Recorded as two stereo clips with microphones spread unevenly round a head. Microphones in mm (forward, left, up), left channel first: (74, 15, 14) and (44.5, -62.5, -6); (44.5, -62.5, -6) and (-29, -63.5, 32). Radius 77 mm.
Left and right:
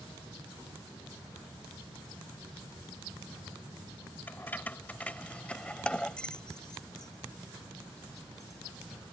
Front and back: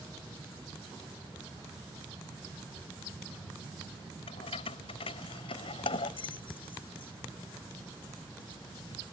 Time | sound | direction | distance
4.3 | keys jangling | 5° left | ?